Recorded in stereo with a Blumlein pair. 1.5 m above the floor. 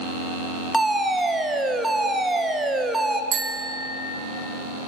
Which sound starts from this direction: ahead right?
A bicycle bell, at 3.3 s.